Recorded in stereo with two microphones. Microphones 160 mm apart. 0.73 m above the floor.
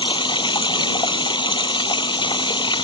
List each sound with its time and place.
0.0 s running water: 30° left (ahead or behind)